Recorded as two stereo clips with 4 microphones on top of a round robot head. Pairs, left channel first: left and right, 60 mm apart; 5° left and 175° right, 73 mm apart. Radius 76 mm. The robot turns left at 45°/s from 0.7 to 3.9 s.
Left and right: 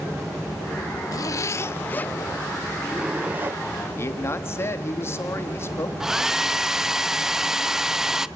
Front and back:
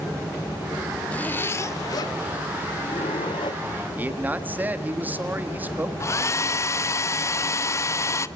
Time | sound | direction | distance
1.1 | a zipper | 75° left | 0.5 m
4.0 | a man speaking | 125° left | 1.8 m
6.0 | a hair dryer | 10° right | 0.8 m